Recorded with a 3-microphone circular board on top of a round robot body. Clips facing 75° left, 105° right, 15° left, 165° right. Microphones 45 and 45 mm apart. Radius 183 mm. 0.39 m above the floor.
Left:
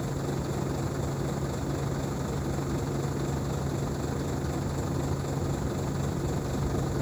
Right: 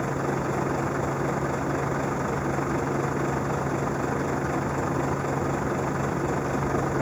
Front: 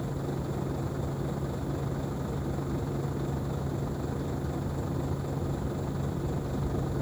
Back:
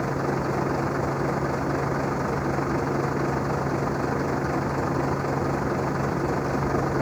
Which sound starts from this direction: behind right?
A vehicle, at 0.0 s.